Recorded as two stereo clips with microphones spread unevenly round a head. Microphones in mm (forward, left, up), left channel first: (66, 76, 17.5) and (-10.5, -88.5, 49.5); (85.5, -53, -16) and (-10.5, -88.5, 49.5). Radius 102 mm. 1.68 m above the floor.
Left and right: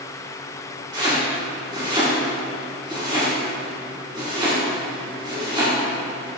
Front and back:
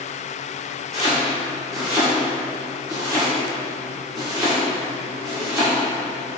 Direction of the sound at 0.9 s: 175° right.